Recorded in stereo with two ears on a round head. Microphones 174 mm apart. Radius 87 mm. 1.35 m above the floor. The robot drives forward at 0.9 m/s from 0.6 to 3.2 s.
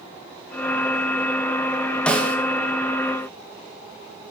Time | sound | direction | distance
2.1 | a snare drum | 5° left (ahead or behind) | 1.8 m